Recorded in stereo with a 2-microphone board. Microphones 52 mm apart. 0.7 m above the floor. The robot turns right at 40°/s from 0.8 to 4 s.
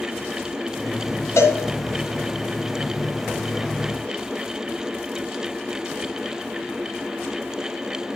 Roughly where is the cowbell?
Left.